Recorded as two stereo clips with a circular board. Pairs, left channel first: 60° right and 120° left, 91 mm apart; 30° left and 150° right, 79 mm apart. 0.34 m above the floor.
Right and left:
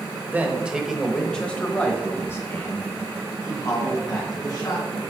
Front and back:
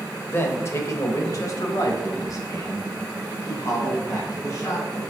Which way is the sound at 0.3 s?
60° left.